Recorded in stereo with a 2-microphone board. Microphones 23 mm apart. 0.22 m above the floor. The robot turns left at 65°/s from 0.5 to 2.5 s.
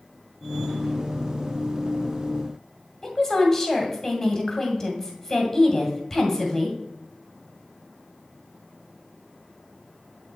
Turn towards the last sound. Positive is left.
turn(degrees=20)  # may be behind; listen again after turning